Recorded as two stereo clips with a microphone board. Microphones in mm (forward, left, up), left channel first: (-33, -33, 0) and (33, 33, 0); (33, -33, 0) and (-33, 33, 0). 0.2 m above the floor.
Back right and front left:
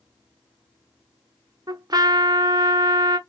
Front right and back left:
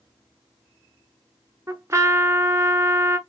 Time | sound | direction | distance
1.7 | a trumpet | 80° left | 0.8 m